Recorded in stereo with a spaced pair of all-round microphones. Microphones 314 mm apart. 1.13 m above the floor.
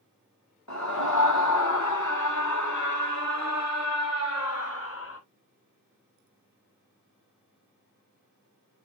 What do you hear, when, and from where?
0.7 s a scream: 55° left (ahead or behind), 1.5 m; by 5.2 s 40° left (ahead or behind), 3 m